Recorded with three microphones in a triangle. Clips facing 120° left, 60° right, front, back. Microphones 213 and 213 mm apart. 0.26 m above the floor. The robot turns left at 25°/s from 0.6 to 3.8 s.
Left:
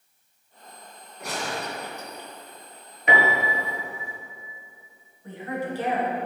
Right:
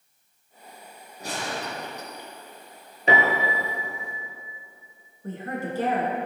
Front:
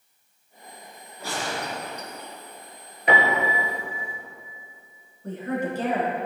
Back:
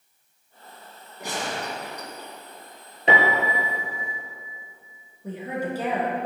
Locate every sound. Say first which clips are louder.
1.2 s a gunshot: left 1 dB, even; 110° right, 2 m; by 2.3 s 140° right, 2 m
3.1 s a piano: right 1 dB, even; 120° right, 1.7 m; by 4.2 s 135° right, 1.7 m
5.2 s a woman speaking: left 1 dB, front 2 dB; 100° right, 3 m